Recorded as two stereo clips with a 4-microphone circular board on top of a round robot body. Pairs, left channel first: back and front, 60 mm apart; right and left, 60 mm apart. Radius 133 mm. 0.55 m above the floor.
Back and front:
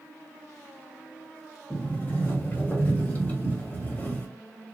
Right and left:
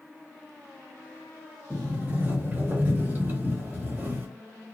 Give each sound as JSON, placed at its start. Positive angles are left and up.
{"t": 1.7, "sound": "a sliding door", "azimuth_deg": 135, "distance_m": 1.5}